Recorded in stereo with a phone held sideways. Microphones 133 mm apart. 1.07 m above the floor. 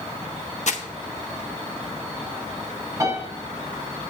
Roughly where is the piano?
Right.